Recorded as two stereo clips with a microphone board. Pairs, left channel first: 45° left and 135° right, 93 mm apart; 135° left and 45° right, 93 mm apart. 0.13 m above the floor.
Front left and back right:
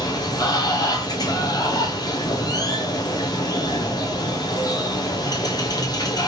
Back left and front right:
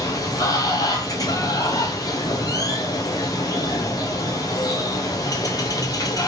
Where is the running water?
90° left, 0.8 m.